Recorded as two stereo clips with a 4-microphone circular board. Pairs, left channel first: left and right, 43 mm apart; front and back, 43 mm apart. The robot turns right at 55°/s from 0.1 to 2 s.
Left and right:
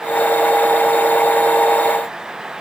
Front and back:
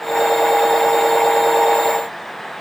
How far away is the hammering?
No hammering in this recording.